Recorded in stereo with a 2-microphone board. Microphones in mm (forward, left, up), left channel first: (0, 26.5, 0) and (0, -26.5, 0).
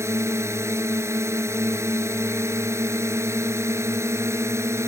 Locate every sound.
0.0 s a drone: 60° right (ahead or behind)